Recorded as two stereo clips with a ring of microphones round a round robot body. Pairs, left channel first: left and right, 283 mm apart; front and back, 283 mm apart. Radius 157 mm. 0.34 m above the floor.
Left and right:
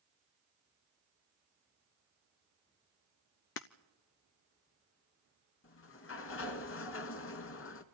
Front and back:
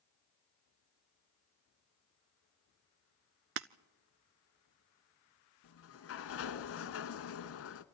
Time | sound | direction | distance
3.6 | breaking glass | 140° left | 0.5 m
5.6 | a sliding door | 45° left | 0.9 m